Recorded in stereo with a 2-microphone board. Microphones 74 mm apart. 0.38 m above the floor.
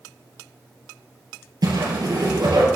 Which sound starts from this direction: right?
A whoosh, at 1.6 s.